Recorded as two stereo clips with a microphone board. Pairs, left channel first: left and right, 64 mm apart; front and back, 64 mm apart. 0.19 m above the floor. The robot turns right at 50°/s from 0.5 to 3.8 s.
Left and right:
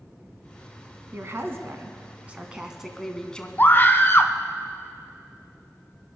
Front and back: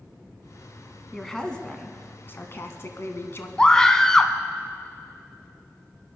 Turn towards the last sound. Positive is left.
turn(degrees=70)